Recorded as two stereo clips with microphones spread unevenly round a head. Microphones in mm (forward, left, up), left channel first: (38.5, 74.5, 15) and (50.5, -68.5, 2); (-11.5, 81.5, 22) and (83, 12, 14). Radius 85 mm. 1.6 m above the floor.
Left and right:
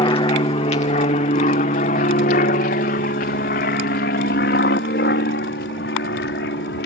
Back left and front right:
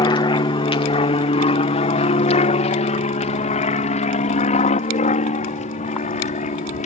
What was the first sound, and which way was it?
An aircraft, 135° left.